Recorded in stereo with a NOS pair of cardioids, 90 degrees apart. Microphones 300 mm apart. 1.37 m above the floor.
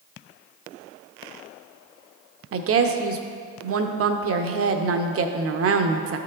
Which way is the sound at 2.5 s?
50° right.